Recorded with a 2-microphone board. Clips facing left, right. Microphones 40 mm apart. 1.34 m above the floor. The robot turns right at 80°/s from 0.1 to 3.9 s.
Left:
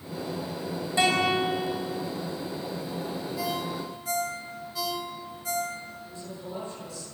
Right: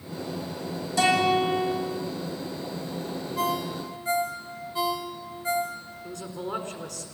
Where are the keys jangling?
No keys jangling in this recording.